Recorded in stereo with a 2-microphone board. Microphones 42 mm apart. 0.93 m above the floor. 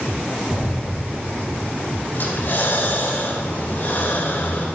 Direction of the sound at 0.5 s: 10° right (ahead or behind).